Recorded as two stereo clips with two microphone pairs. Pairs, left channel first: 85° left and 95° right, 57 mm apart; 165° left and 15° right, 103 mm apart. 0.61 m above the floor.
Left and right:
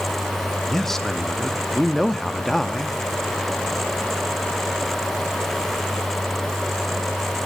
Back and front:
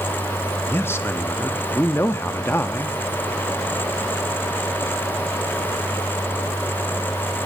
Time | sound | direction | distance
0.7 | a man speaking | 165° left | 0.6 m